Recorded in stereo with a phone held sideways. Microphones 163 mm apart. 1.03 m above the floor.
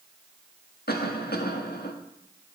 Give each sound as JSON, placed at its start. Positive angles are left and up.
{"t": 0.9, "sound": "a cough", "side_deg": 75, "distance_m": 1.8}